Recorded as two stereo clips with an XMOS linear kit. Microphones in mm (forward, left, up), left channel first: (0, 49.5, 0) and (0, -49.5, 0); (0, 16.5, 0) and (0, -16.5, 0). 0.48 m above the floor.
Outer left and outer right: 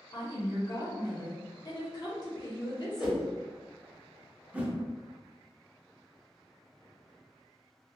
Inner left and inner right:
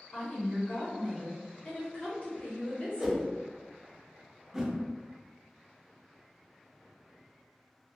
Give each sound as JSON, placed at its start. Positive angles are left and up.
{"t": 0.1, "sound": "a woman speaking", "side_deg": 40, "distance_m": 1.2}
{"t": 3.0, "sound": "a whoosh", "side_deg": -10, "distance_m": 0.7}
{"t": 4.5, "sound": "a whoosh", "side_deg": -15, "distance_m": 0.5}